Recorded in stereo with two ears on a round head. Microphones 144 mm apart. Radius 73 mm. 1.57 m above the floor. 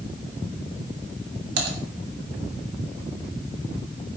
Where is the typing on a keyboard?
75° right (ahead or behind), 3 m.